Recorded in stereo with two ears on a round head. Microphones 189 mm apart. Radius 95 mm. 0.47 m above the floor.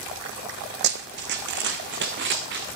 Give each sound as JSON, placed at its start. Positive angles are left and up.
{"t": 0.8, "sound": "running footsteps", "side_deg": -55, "distance_m": 1.7}